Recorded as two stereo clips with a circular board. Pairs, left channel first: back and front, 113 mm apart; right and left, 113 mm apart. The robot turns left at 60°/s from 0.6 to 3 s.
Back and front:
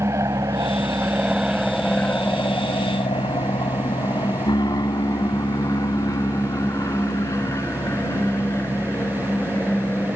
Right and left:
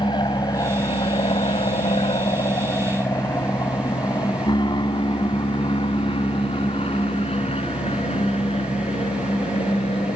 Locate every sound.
0.0 s an aircraft: 55° right; by 10.2 s 110° right